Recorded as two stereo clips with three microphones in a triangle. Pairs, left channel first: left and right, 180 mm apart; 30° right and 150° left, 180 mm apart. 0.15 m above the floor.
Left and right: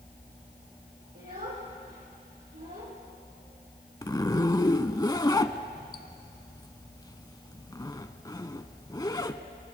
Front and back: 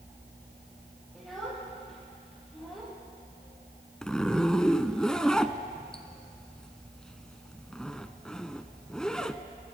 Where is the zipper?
50° left, 0.5 m.